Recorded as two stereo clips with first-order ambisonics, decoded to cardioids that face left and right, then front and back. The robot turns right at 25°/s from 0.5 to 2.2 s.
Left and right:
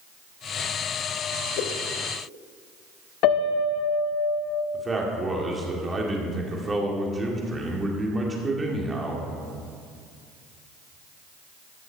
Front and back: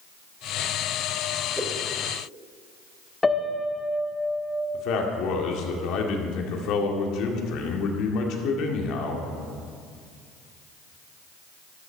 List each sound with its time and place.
1.6 s a whoosh: 100° left, 1.5 m; by 1.8 s 105° left, 1.5 m
3.2 s a piano: 80° left, 0.9 m
4.7 s a man speaking: 20° right, 1.9 m